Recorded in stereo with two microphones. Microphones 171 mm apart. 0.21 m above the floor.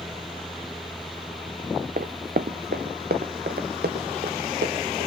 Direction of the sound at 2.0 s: 65° right (ahead or behind).